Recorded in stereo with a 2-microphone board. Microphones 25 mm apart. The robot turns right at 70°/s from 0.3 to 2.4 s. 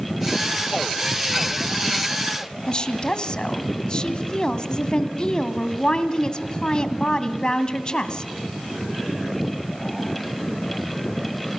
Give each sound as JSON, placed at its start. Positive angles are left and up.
{"t": 2.7, "sound": "a woman speaking", "side_deg": 35, "distance_m": 1.9}